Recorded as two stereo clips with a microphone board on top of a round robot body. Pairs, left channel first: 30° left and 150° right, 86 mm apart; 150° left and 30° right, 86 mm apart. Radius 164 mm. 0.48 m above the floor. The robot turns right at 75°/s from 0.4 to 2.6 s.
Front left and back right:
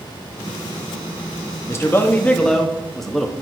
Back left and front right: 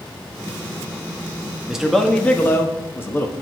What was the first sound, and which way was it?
A man speaking, 45° left.